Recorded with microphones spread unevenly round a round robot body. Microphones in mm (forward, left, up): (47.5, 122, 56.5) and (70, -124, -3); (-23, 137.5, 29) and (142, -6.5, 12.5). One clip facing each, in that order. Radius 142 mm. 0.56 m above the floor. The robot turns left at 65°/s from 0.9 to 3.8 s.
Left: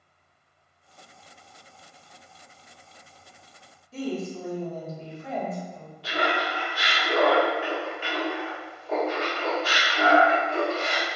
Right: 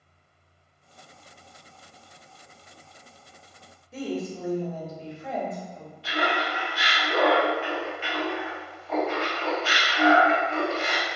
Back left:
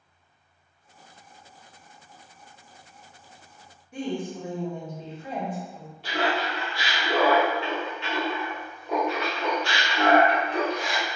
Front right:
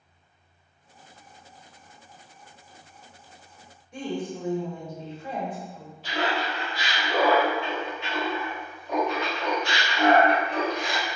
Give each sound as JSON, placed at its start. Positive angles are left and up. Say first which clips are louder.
{"t": 3.9, "sound": "a woman speaking", "louder": "even, back left 1 dB", "azimuth_deg": -135, "distance_m": 0.9}
{"t": 6.0, "sound": "laughter", "louder": "even, back left 1 dB", "azimuth_deg": 145, "distance_m": 1.5}